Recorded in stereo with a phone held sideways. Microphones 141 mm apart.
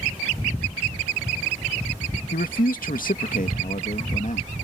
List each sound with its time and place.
2.3 s a man speaking: 85° left; by 4.5 s 60° left (ahead or behind)